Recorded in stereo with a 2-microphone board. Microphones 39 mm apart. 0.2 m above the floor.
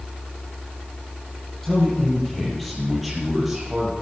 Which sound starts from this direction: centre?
A man speaking, at 1.6 s.